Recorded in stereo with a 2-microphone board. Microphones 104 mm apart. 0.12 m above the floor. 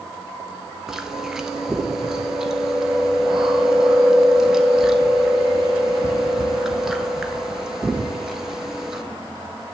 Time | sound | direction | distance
0.9 | chewing | 5° right (ahead or behind) | 1.1 m